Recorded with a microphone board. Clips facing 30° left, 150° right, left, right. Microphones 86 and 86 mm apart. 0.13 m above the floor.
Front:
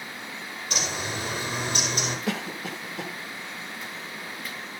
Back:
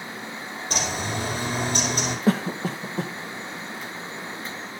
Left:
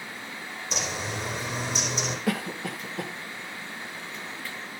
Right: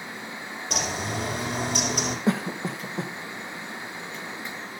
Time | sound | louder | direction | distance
0.7 | a bird | back 3 dB, right 3 dB | 100° right | 4.5 m
2.3 | a cough | back 7 dB, right 4 dB | 135° right | 1.4 m